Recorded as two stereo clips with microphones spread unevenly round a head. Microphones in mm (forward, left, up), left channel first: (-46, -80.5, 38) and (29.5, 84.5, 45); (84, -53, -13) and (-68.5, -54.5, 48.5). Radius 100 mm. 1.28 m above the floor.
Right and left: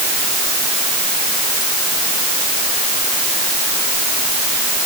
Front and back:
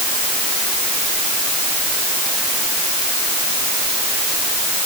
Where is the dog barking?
I don't hear a dog barking.